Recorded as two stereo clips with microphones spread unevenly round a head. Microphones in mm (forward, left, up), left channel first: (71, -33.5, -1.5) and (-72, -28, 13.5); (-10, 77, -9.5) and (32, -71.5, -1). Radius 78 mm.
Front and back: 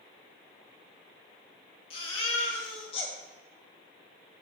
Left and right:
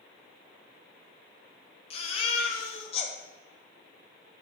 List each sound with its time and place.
1.9 s a baby crying: 55° left, 1.3 m